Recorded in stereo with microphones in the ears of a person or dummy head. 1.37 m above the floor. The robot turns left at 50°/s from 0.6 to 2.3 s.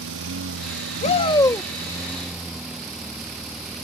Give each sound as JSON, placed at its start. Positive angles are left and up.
{"t": 0.0, "sound": "a lawn mower", "azimuth_deg": -95}
{"t": 1.0, "sound": "a shout", "azimuth_deg": 45}